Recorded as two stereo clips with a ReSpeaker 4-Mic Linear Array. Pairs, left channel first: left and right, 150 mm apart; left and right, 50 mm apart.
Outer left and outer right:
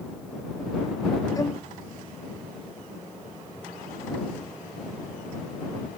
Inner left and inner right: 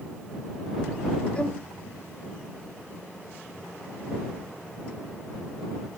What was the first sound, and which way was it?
A violin, 25° left (ahead or behind).